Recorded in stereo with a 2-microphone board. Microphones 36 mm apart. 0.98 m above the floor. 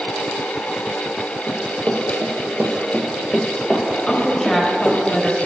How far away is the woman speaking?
About 1.2 m.